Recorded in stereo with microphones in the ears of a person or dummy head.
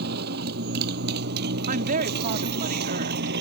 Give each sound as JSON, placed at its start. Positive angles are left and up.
{"t": 0.0, "sound": "a motorcycle", "side_deg": -55}
{"t": 1.7, "sound": "a woman speaking", "side_deg": -50}